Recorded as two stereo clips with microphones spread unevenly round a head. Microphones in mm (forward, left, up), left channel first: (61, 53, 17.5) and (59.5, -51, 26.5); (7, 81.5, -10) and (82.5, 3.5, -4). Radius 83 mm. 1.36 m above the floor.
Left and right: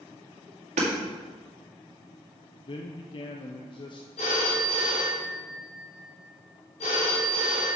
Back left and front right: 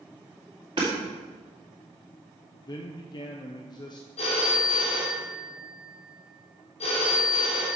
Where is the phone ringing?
120° left, 2.5 m.